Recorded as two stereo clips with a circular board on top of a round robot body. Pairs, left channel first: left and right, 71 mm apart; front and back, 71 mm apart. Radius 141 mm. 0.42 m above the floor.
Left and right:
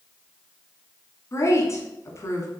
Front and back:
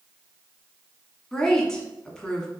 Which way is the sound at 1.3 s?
75° left.